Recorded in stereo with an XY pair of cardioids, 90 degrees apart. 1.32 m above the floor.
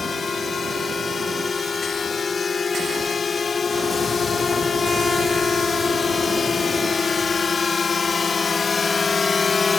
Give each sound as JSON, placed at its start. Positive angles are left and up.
{"t": 0.0, "sound": "a drone", "azimuth_deg": 40}